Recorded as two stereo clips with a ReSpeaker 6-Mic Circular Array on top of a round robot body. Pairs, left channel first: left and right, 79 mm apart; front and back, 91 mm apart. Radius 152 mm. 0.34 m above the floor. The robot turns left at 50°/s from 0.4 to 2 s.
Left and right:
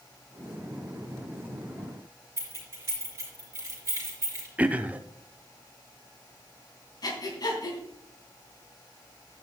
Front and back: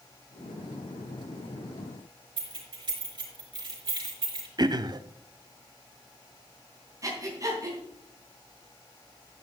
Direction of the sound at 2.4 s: 145° right.